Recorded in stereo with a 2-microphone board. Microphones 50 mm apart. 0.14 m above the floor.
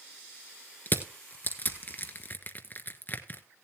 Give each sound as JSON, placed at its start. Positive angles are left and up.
{"t": 0.9, "sound": "crushing", "side_deg": 35, "distance_m": 1.2}